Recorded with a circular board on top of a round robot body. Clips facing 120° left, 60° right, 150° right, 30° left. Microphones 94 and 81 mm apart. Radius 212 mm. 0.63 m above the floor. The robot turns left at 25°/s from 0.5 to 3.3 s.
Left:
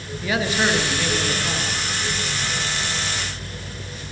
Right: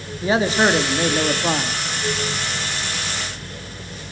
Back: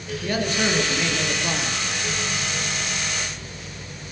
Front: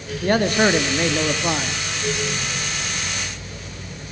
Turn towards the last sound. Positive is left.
turn(degrees=-70)